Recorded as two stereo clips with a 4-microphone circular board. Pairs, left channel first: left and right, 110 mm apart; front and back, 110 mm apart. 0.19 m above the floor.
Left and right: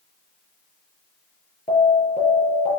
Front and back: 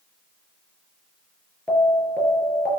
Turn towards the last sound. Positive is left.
turn(degrees=80)